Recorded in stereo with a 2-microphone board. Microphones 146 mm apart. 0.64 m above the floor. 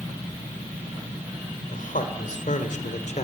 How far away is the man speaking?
About 2.5 m.